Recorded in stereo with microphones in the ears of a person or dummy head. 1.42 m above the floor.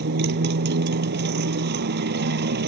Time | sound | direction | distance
0.0 | a motorcycle | 65° right (ahead or behind) | ?